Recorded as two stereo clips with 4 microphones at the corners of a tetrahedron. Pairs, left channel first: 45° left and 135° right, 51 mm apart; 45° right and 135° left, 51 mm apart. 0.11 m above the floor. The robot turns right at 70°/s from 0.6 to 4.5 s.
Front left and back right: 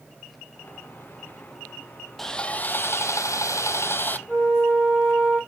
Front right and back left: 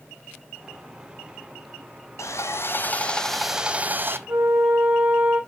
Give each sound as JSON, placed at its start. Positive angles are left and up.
{"t": 2.2, "sound": "sawing", "azimuth_deg": -40, "distance_m": 0.8}
{"t": 4.3, "sound": "a flute", "azimuth_deg": 140, "distance_m": 4.5}